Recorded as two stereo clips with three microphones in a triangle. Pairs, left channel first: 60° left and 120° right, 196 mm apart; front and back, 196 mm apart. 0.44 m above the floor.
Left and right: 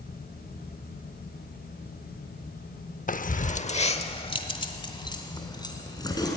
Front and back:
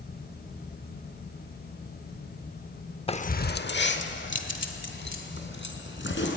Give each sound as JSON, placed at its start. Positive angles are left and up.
{"t": 3.1, "sound": "keys jangling", "azimuth_deg": 50, "distance_m": 0.5}